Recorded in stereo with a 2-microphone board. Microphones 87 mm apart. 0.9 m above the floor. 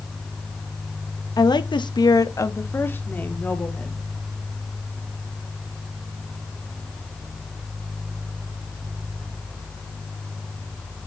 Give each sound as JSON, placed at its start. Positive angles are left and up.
{"t": 1.4, "sound": "a woman speaking", "side_deg": 45, "distance_m": 0.9}